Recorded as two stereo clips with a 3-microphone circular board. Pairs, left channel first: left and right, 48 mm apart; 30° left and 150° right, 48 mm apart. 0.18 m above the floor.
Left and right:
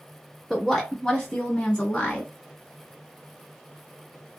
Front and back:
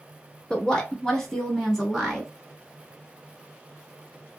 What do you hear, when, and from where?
0.5 s a woman speaking: straight ahead, 1.1 m; by 2.3 s 115° left, 1.2 m